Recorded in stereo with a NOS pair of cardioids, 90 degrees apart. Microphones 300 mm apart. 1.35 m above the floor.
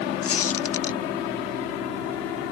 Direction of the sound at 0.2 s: 50° left.